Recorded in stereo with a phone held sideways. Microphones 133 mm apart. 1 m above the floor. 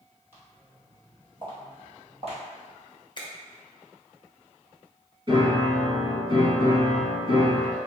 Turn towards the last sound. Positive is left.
turn(degrees=-40)  # may be behind; listen again after turning